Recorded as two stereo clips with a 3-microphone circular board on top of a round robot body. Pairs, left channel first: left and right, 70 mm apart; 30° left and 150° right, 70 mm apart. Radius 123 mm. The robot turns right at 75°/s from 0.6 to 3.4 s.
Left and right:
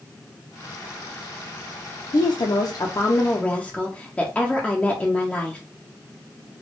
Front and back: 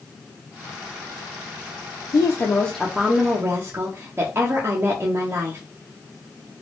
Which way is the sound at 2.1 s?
65° left.